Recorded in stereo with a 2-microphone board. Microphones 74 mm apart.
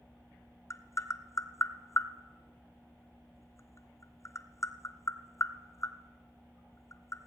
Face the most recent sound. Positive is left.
turn(degrees=45)  # may be behind; listen again after turning